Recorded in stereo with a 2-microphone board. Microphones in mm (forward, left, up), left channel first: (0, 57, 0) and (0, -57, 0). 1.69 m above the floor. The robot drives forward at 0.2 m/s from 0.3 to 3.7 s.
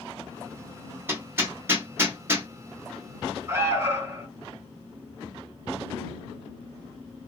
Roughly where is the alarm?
Right.